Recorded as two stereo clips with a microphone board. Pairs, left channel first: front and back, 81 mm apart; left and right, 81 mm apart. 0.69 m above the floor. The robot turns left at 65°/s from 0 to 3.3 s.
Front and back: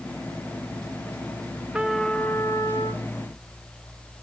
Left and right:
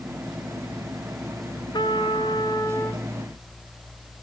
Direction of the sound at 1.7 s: 105° left.